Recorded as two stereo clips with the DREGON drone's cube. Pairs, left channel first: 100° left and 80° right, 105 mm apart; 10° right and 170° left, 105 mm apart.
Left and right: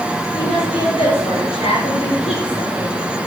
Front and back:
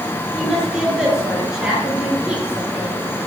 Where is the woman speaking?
80° left, 6.5 m; by 2.9 s 95° left, 3.5 m.